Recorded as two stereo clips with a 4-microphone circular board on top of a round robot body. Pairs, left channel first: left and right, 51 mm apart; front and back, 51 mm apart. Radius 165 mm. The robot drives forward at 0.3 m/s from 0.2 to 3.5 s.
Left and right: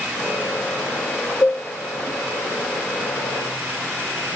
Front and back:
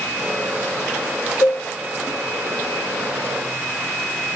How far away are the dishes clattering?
About 0.8 m.